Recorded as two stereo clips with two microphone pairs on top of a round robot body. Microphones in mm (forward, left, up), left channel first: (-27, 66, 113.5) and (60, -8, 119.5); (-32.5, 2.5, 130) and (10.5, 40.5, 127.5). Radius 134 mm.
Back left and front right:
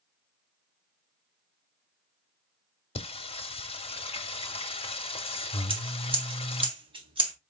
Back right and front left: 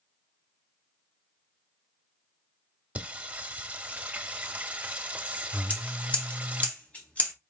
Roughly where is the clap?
I don't hear a clap.